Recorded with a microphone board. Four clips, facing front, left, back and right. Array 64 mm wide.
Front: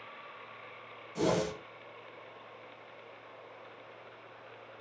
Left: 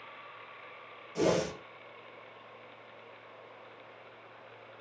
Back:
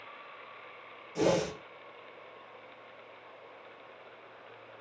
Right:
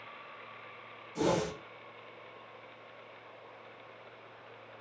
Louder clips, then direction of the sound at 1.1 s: Left 2 dB, back 2 dB; 140° left.